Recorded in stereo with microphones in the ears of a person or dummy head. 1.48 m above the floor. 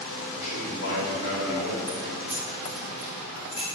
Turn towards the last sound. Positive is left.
turn(degrees=25)  # may be behind; listen again after turning